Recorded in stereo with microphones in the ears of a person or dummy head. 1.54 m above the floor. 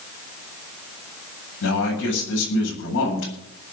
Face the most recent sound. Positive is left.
turn(degrees=70)  # may be behind; listen again after turning